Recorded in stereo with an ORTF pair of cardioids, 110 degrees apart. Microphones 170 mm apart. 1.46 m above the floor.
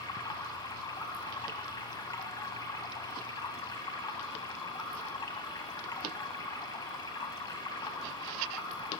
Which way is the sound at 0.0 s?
20° left.